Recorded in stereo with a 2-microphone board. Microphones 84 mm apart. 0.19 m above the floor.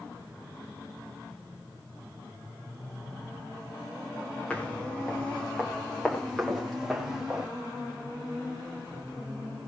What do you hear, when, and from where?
4.5 s footsteps: 15° left (ahead or behind), 7 m; by 7.5 s 5° right (ahead or behind), 6 m